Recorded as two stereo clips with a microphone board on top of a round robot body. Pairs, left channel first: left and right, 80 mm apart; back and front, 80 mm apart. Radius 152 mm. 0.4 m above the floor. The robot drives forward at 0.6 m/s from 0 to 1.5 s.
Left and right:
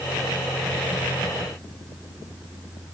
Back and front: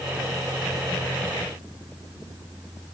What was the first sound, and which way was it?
Only background noise.